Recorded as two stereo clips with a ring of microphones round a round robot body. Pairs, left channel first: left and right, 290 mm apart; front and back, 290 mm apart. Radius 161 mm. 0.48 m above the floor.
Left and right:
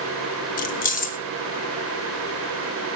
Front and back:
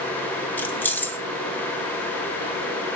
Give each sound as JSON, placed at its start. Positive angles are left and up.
{"t": 0.6, "sound": "keys jangling", "azimuth_deg": 80, "distance_m": 0.5}